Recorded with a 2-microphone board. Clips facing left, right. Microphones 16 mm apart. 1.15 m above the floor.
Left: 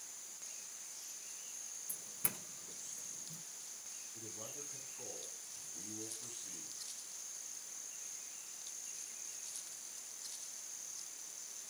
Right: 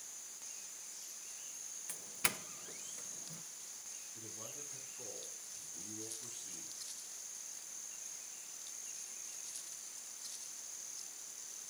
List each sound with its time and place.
1.9 s a doorbell: 50° right (ahead or behind), 0.8 m
4.1 s a man speaking: 15° left (ahead or behind), 9 m